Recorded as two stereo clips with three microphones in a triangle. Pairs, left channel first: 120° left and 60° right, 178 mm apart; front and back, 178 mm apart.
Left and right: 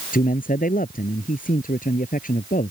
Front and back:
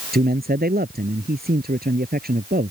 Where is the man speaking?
155° left.